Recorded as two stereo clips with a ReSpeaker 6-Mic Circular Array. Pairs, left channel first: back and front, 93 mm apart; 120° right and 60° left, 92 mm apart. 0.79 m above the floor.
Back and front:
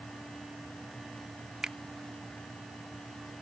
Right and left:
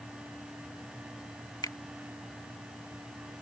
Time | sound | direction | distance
1.6 | a finger snap | 80° right | ?